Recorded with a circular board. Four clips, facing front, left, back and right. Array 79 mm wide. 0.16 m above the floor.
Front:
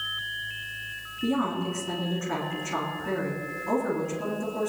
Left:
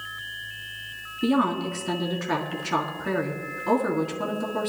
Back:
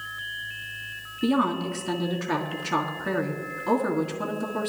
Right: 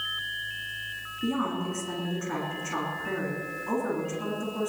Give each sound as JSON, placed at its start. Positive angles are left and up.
{"t": 1.2, "sound": "a woman speaking", "azimuth_deg": 135, "distance_m": 2.0}